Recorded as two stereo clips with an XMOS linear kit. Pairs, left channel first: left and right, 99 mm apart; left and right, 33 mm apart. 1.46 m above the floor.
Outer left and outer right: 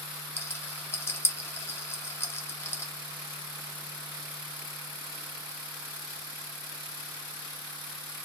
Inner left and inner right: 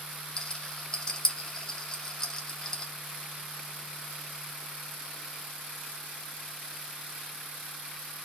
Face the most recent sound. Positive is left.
turn(degrees=25)  # may be behind; listen again after turning